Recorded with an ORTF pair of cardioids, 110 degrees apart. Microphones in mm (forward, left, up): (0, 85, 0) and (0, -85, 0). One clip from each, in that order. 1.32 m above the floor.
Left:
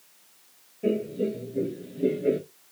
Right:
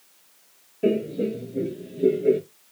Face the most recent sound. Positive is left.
turn(degrees=10)